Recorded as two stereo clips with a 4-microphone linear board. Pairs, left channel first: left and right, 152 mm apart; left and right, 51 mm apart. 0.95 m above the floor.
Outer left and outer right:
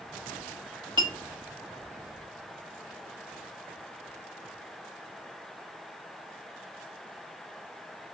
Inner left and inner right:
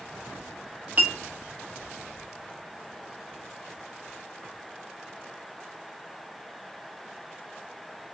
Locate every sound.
1.0 s a clink: 30° right (ahead or behind), 1.1 m